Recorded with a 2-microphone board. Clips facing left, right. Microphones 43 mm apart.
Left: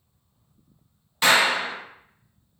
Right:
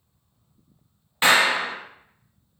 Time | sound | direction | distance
1.2 | a clap | 25° right (ahead or behind) | 0.6 m